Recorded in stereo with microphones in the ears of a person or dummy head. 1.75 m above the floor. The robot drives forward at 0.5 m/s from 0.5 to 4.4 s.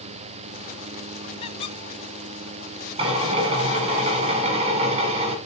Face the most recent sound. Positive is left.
turn(degrees=-40)  # may be behind; listen again after turning